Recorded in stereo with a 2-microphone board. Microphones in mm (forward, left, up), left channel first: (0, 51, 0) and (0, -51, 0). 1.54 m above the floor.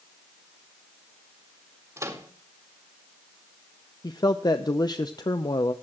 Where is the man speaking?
40° left (ahead or behind), 0.7 m.